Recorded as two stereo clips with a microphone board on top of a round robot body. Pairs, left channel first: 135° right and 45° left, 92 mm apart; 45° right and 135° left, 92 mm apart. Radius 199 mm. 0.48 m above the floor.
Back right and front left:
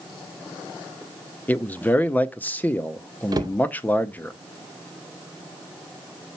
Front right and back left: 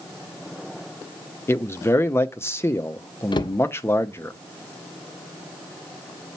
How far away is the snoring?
No snoring in this recording.